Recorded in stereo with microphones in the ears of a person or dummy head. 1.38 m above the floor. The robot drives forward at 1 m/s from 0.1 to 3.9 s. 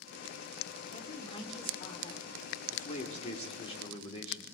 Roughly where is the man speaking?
Left.